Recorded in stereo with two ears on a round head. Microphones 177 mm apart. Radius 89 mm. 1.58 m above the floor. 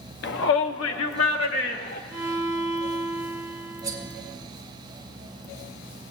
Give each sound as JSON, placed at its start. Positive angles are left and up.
{"t": 0.2, "sound": "a shout", "side_deg": 60, "distance_m": 0.7}
{"t": 2.1, "sound": "a violin", "side_deg": -15, "distance_m": 1.2}
{"t": 3.8, "sound": "cutlery clinking", "side_deg": -15, "distance_m": 1.7}